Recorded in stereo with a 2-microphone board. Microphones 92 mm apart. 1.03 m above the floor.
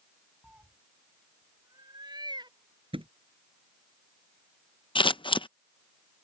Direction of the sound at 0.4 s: 10° right (ahead or behind).